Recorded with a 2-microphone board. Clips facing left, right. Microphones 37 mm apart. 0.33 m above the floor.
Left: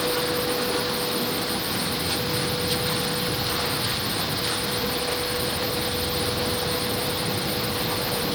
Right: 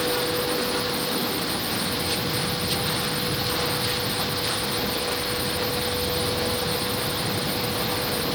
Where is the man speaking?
No man speaking in this recording.